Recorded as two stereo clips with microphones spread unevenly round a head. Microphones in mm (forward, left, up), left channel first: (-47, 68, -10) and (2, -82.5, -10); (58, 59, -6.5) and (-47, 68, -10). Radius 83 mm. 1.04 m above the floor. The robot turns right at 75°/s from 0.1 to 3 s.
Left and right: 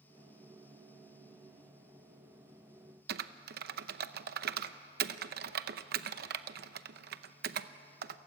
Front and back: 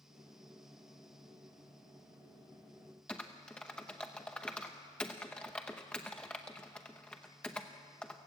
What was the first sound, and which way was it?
Typing on a keyboard, 90° right.